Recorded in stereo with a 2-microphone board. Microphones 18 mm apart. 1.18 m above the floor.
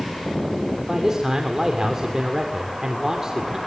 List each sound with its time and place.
0.8 s a man speaking: 30° right (ahead or behind), 3 m